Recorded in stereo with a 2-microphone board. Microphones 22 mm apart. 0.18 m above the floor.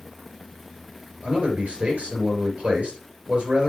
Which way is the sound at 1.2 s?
60° right (ahead or behind).